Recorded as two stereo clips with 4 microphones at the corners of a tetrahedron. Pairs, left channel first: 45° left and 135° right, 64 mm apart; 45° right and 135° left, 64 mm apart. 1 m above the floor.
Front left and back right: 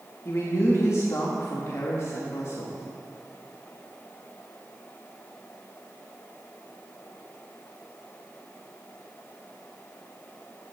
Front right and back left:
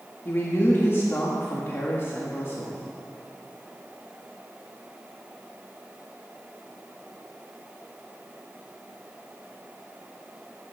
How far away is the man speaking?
About 1.6 m.